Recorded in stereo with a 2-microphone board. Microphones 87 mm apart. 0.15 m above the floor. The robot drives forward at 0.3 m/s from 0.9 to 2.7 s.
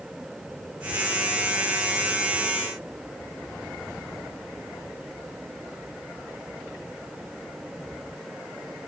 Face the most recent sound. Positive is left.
No sound to turn to.